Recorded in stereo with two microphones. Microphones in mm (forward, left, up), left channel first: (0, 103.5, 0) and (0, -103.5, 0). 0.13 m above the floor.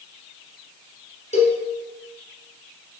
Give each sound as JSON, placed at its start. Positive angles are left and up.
{"t": 1.3, "sound": "a cowbell", "side_deg": 35, "distance_m": 1.8}